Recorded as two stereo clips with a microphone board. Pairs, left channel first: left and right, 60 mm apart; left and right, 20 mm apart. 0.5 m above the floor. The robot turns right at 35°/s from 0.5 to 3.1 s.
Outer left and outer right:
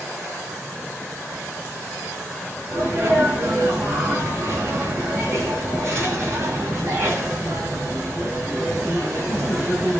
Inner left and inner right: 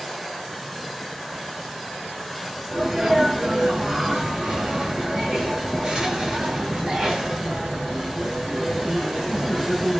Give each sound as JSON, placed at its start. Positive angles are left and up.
{"t": 2.7, "sound": "a sneeze", "side_deg": -40, "distance_m": 3.0}